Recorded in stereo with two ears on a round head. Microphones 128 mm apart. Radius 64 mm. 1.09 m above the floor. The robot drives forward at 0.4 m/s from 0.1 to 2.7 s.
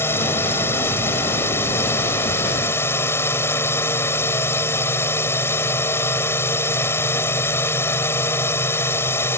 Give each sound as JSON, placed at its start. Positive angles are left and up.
{"t": 0.0, "sound": "a drone", "side_deg": 15}